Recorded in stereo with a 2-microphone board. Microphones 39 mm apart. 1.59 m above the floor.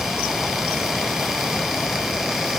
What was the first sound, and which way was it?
Only background noise.